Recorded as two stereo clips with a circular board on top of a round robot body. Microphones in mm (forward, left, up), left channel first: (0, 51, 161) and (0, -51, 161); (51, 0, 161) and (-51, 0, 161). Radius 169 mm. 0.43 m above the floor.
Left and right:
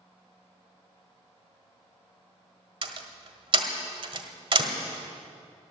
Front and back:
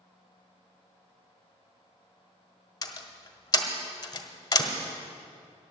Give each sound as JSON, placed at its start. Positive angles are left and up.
{"t": 2.8, "sound": "a door slam", "azimuth_deg": -55, "distance_m": 1.5}